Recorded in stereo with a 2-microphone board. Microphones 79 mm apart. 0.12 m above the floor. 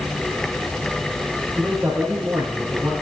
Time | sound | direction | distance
1.6 | a man speaking | 20° right (ahead or behind) | 6 m